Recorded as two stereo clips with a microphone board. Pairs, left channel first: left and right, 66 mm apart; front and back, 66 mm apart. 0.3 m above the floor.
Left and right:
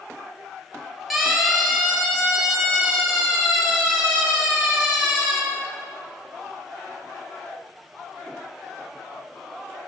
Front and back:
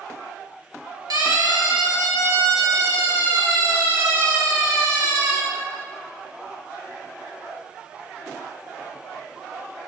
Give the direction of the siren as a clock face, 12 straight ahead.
6 o'clock.